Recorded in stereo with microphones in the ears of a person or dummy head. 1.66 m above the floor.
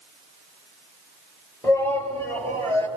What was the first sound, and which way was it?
A shout, 10° left (ahead or behind).